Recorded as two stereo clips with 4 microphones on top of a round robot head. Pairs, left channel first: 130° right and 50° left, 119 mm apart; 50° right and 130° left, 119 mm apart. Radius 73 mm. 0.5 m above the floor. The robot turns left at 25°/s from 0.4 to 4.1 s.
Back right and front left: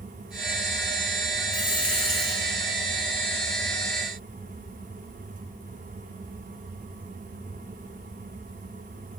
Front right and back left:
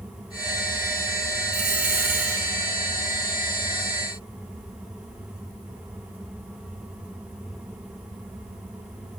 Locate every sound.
1.5 s a dropped coin: 160° left, 4.5 m; by 2.4 s 140° left, 4.5 m